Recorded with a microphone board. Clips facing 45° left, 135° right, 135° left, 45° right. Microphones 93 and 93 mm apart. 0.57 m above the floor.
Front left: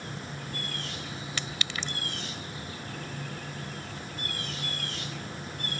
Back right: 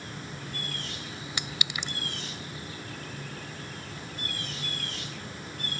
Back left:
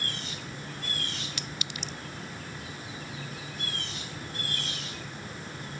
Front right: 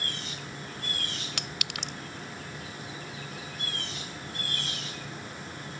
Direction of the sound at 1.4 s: 60° right.